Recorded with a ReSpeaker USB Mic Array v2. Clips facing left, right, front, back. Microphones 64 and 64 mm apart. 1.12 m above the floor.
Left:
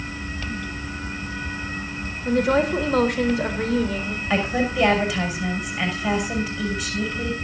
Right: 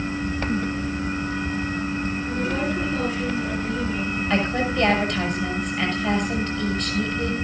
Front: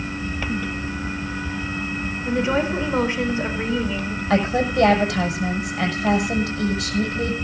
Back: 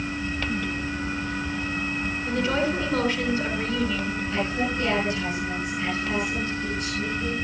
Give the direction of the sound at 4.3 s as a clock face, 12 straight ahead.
12 o'clock.